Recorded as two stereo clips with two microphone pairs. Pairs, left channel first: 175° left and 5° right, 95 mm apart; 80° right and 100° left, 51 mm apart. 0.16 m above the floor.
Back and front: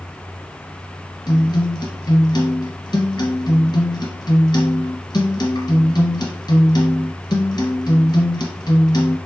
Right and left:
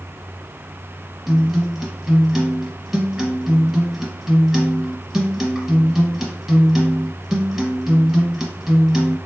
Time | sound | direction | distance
1.3 | a guitar | 175° left | 1.4 m